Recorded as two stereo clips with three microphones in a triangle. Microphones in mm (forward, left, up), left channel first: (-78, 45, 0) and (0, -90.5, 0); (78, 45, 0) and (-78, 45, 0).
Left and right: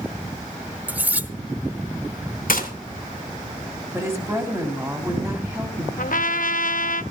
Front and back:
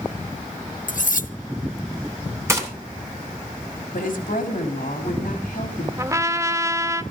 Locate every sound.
0.9 s cutlery clinking: 15° left, 0.7 m
2.5 s a gunshot: 110° left, 3 m
3.9 s a woman speaking: 10° left, 3 m
6.0 s a trumpet: 110° left, 0.6 m